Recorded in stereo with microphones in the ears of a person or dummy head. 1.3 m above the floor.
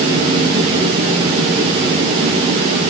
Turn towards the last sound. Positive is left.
No sound to turn to.